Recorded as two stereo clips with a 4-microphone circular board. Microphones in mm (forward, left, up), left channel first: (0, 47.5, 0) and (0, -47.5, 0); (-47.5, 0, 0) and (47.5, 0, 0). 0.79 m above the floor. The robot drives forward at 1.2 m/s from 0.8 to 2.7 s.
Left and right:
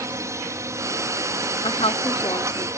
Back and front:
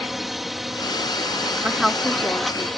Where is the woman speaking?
75° left; by 2.7 s 130° left.